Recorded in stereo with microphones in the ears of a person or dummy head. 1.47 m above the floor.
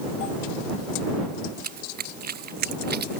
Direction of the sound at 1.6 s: 45° right (ahead or behind).